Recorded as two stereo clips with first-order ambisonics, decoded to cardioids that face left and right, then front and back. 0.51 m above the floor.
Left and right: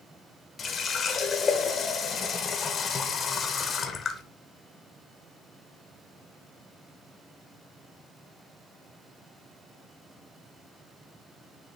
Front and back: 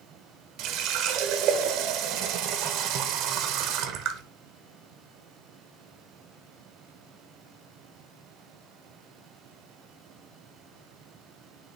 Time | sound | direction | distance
0.6 | a running tap | 155° left | 1.0 m